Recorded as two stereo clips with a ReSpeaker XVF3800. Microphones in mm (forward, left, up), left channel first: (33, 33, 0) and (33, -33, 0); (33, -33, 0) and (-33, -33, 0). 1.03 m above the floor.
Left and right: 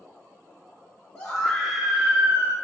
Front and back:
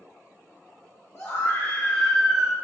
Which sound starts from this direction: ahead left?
A scream, at 1.1 s.